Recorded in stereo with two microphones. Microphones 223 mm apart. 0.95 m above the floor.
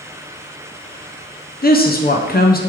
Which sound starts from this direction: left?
A woman speaking, at 1.6 s.